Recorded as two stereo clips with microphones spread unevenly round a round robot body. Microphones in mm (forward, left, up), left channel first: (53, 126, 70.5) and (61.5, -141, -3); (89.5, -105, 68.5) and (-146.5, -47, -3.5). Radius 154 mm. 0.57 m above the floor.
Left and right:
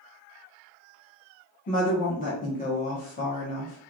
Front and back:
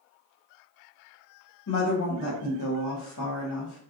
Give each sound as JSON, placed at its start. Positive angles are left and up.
{"t": 1.7, "sound": "a woman speaking", "azimuth_deg": 25, "distance_m": 1.0}